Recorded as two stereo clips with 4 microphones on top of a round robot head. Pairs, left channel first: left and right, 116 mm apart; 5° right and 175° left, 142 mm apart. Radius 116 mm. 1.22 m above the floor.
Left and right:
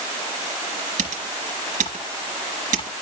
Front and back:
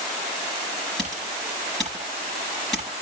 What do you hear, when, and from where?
1.0 s typing on a keyboard: 95° right, 3.5 m